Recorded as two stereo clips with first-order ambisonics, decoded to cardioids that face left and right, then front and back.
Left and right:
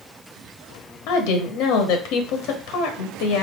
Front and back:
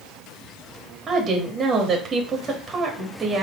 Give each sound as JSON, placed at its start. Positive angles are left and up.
{"t": 1.1, "sound": "a woman speaking", "azimuth_deg": 110, "distance_m": 1.2}